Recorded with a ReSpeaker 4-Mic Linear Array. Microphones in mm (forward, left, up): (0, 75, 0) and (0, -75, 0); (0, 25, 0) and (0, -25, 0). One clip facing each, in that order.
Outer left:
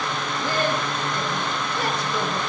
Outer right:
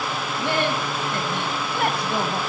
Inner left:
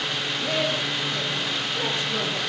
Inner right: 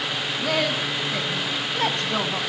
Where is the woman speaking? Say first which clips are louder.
Outer right 1 dB, inner right 2 dB; 75° right (ahead or behind), 4 m; by 2.4 s 55° right (ahead or behind), 3.5 m.